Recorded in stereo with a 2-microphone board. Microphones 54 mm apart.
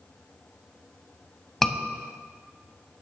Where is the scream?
5° left (ahead or behind), 1.1 m.